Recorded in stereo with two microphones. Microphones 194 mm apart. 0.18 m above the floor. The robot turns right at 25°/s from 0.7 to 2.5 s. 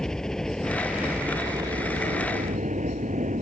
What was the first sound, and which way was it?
A helicopter, 5° left (ahead or behind).